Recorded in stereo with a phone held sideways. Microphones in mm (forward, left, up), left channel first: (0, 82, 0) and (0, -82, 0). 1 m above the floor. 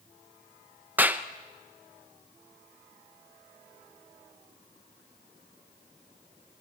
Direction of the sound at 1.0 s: 10° right (ahead or behind).